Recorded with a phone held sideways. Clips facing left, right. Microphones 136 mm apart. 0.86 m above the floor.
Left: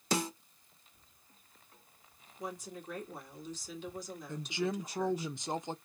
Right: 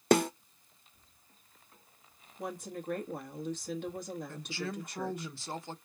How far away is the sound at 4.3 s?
About 0.6 m.